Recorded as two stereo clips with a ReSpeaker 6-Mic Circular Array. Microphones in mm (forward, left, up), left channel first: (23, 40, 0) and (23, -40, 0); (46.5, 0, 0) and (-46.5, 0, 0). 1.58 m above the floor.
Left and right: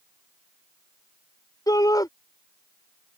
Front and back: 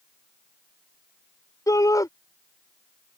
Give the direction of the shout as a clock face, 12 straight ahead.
10 o'clock.